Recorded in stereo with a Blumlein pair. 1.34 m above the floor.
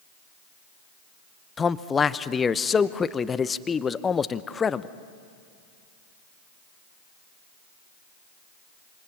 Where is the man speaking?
15° left, 0.7 m.